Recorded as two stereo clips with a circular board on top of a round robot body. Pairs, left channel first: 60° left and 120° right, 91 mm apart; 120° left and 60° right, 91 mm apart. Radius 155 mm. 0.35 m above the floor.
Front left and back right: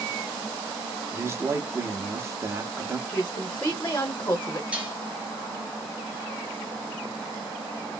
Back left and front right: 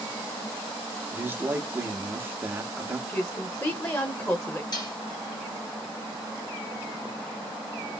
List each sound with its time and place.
1.1 s a man speaking: 105° right, 0.8 m
3.1 s a woman speaking: 100° left, 1.3 m
4.7 s dishes clattering: 160° left, 1.5 m